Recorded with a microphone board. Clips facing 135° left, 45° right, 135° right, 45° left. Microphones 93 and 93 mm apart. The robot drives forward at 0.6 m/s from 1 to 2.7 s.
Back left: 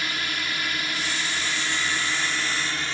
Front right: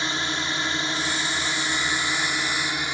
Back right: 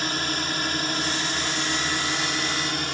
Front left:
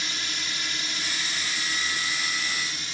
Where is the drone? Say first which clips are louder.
Front right 3 dB, back right 8 dB; 105° right; by 2.9 s 115° right.